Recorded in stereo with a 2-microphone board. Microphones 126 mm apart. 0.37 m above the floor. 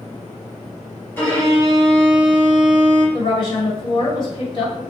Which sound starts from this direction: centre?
A violin, at 1.2 s.